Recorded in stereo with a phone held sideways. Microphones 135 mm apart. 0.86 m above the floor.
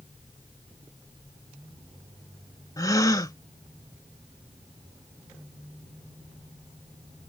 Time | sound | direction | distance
2.8 | a gasp | 25° left (ahead or behind) | ?